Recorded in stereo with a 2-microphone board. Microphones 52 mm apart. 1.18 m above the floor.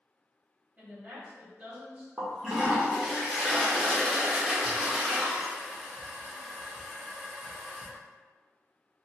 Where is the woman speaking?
35° right (ahead or behind), 1.6 m.